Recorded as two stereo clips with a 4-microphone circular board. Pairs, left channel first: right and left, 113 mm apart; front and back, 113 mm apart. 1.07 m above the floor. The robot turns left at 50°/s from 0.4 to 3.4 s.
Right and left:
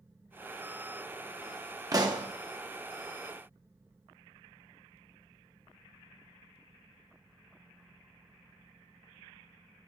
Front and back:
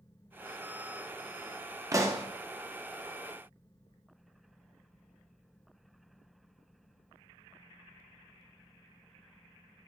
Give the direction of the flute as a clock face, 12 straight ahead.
No flute in this recording.